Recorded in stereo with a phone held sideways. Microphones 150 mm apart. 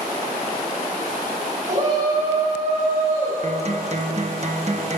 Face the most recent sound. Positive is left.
turn(degrees=-45)  # may be behind; listen again after turning